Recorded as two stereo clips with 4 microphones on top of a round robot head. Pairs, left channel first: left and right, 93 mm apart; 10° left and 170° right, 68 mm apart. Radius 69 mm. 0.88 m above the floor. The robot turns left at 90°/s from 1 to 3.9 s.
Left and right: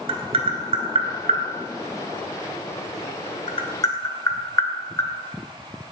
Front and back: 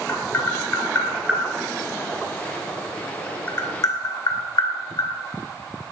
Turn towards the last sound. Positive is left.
turn(degrees=35)